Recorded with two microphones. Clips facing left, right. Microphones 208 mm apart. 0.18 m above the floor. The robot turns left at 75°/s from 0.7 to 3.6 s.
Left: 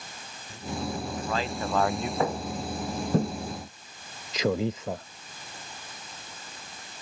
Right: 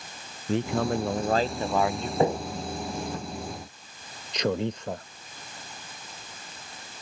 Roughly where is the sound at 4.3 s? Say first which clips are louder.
Left 1 dB; centre.